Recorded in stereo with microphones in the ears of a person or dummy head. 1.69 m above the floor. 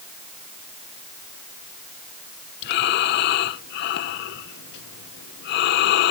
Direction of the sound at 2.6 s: 65° left (ahead or behind).